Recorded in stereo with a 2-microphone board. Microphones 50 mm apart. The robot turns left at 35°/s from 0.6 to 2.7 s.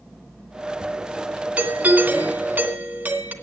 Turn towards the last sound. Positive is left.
turn(degrees=-75)